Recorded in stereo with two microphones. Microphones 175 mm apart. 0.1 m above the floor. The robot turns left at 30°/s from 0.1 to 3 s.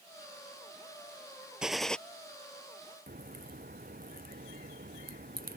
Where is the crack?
55° right (ahead or behind).